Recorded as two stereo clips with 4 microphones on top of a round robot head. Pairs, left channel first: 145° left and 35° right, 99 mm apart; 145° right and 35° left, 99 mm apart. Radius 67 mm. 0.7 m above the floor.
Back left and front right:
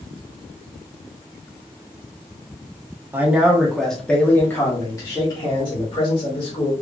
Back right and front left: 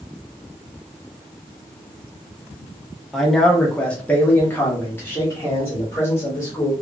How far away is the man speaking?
About 1.2 m.